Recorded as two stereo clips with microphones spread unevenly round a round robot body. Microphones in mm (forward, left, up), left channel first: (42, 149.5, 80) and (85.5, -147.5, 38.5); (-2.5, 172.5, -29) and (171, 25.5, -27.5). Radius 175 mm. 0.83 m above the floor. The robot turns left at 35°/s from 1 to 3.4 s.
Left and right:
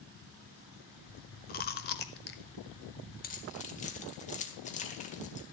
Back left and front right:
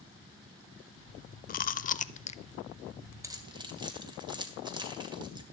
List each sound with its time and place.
1.5 s chewing: 125° left, 0.6 m; by 2.4 s 95° left, 0.6 m
3.2 s keys jangling: 35° left, 2 m; by 5.4 s 30° left, 2 m